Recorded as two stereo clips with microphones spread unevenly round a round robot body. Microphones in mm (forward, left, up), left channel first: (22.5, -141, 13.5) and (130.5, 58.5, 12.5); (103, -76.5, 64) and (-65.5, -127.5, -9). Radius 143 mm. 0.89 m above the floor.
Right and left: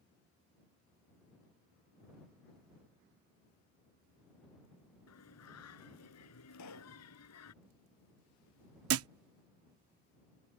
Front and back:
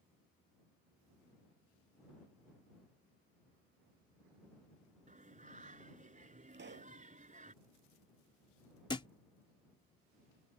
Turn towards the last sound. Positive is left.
turn(degrees=75)